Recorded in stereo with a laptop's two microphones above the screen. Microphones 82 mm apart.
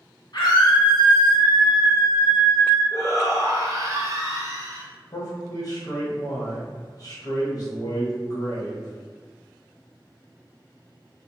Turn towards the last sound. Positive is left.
turn(degrees=50)  # may be behind; listen again after turning